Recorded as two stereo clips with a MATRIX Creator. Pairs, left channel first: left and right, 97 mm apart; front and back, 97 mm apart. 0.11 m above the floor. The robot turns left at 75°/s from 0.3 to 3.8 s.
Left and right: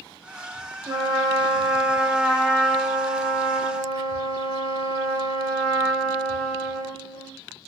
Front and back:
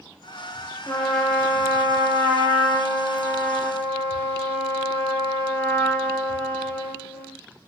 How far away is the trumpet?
About 2.0 m.